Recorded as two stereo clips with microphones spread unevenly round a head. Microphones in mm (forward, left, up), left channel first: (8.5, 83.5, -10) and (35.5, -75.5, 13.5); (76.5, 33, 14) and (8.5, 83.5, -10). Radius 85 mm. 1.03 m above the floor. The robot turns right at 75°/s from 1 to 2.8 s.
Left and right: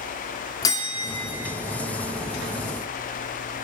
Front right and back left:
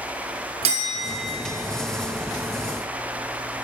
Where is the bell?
170° left, 1.2 m; by 1.3 s 165° right, 1.2 m.